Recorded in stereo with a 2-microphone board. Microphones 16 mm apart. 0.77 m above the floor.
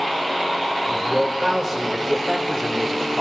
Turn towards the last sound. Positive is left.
turn(degrees=-30)  # may be behind; listen again after turning